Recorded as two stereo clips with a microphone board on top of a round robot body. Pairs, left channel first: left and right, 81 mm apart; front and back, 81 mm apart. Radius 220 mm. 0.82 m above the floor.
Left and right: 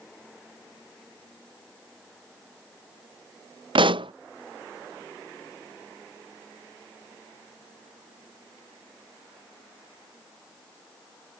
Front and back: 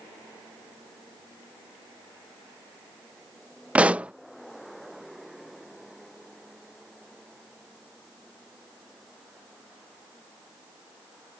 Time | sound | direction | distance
3.8 | a pop | 105° right | ?